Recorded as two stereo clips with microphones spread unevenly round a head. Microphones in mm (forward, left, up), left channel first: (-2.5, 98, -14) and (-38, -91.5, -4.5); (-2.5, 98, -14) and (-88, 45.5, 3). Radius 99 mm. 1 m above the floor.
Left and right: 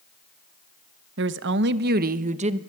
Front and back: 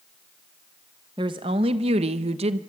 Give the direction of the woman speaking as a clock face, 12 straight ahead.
3 o'clock.